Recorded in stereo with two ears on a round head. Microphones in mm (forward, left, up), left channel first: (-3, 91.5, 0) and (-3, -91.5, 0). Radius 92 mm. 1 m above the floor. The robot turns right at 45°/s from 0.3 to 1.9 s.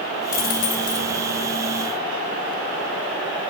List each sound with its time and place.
0.3 s a dropped coin: 45° left, 0.7 m; by 1.1 s 80° left, 0.7 m